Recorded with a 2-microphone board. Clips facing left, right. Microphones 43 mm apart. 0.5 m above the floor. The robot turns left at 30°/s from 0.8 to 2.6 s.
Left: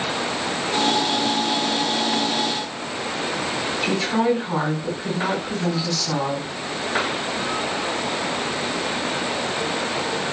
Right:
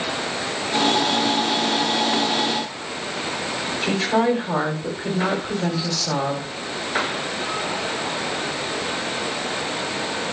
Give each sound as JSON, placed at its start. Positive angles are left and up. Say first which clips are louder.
{"t": 3.8, "sound": "a woman speaking", "louder": "right 1 dB", "side_deg": -55, "distance_m": 2.5}